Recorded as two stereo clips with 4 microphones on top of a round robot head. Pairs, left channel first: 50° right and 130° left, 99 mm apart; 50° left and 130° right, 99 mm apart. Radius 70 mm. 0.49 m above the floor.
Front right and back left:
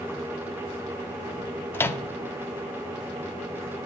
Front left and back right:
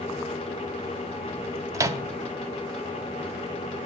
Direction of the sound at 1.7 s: 100° right.